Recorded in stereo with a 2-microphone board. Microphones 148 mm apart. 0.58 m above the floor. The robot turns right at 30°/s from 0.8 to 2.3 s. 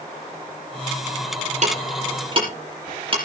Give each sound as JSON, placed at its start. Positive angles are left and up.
{"t": 1.6, "sound": "ticking", "side_deg": -55, "distance_m": 6.5}